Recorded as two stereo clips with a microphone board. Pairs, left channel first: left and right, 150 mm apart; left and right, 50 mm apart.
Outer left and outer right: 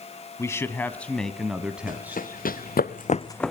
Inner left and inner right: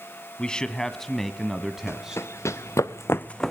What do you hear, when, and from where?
0.4 s a man speaking: 20° left (ahead or behind), 1.1 m; by 2.2 s 15° right (ahead or behind), 1.3 m
1.9 s running footsteps: 65° left (ahead or behind), 2 m; by 3.5 s centre (ahead or behind), 0.7 m